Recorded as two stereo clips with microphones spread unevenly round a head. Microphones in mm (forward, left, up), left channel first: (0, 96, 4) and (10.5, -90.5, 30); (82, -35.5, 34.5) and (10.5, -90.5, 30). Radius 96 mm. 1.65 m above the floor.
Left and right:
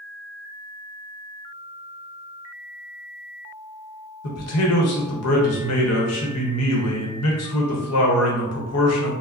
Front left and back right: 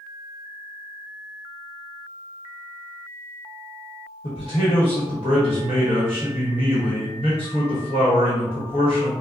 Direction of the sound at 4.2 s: 90° left.